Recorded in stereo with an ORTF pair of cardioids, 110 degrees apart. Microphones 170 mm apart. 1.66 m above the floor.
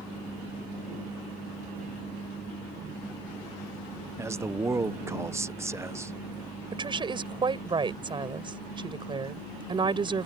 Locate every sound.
4.2 s a man speaking: 15° right
6.7 s a woman speaking: 30° right